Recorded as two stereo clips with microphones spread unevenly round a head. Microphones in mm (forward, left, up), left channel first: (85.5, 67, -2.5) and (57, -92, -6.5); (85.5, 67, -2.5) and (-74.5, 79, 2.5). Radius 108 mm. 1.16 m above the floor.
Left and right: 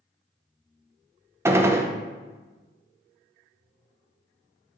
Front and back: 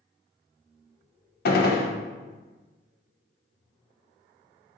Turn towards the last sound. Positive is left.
turn(degrees=-30)